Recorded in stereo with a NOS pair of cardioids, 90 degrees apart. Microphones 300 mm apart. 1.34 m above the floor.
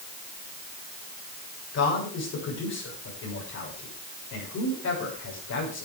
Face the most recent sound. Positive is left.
turn(degrees=60)